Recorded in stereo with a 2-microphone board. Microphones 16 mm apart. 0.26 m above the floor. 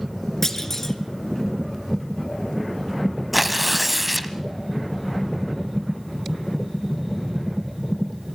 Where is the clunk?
25° left (ahead or behind), 1.9 m.